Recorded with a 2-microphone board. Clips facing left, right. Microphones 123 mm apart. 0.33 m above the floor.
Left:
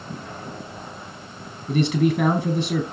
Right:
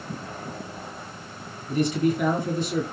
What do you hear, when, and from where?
1.7 s a man speaking: 75° left (ahead or behind), 5 m